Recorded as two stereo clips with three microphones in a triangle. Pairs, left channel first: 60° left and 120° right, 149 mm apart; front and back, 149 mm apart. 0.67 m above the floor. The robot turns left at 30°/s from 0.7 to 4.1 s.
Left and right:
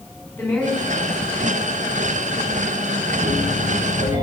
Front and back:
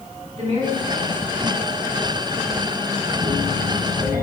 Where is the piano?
130° left, 7.5 m; by 4.2 s 100° left, 7.5 m.